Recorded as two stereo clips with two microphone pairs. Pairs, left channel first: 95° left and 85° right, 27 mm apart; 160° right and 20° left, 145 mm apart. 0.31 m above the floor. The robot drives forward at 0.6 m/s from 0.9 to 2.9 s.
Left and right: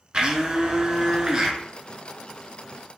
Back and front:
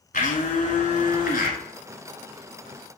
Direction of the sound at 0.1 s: 135° right.